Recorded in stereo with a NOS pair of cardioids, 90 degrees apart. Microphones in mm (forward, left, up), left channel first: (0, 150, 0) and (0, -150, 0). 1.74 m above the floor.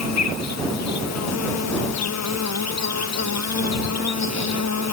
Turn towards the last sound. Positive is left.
turn(degrees=65)